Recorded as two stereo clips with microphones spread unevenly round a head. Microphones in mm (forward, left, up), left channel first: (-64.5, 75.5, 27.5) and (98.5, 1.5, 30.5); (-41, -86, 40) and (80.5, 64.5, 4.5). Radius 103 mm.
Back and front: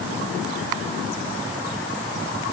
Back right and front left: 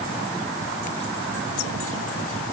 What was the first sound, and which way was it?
Only background noise.